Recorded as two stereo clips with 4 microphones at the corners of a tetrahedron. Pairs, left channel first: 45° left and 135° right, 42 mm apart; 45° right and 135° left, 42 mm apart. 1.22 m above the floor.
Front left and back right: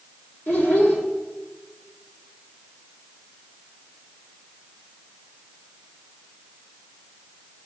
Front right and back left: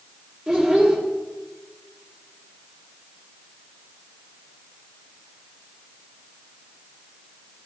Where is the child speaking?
55° left, 1.8 m.